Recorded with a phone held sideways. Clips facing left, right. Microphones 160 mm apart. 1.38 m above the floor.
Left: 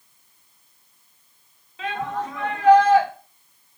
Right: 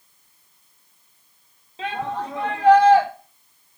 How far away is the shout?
About 2.5 m.